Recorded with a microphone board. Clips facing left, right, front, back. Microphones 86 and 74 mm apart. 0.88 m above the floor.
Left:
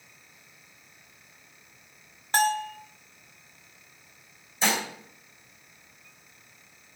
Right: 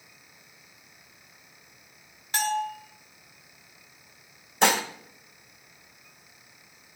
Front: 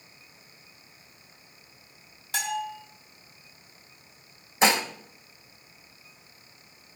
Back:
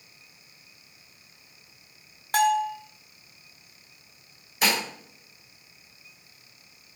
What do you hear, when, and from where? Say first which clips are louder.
2.3 s a bell: left 3 dB, back 9 dB; 140° left, 1.6 m
4.6 s dishes clattering: right 5 dB, front 4 dB; 65° right, 1.7 m